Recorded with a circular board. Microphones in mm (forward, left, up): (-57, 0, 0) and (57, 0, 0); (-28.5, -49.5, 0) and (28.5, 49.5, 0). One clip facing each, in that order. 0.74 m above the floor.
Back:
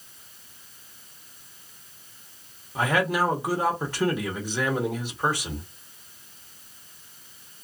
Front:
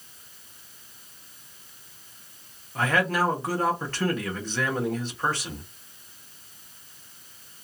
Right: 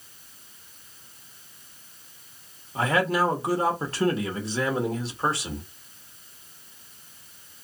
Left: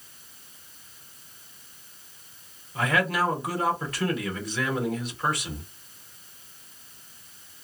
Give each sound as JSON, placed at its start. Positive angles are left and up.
{"t": 2.8, "sound": "a man speaking", "azimuth_deg": -115, "distance_m": 1.1}